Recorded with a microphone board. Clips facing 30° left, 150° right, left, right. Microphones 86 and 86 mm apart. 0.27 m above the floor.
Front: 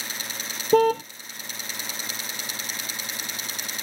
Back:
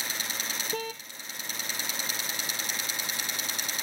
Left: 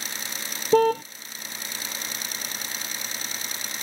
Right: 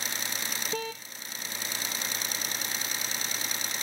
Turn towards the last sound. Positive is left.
turn(degrees=55)